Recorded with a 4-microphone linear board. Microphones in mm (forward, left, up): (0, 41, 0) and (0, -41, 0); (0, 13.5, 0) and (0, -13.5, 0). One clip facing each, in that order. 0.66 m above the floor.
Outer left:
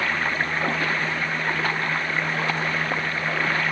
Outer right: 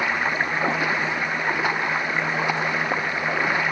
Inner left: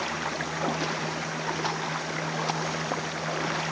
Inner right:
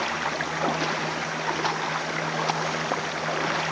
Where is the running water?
15° right (ahead or behind).